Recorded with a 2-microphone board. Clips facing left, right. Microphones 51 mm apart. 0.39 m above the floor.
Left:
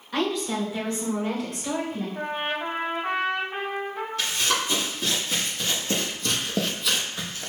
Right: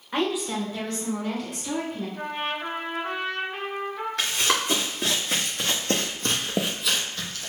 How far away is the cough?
No cough in this recording.